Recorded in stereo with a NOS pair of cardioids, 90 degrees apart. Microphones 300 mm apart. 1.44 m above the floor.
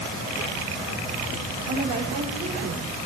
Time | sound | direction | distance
1.7 | a woman speaking | 50° right | 8.5 m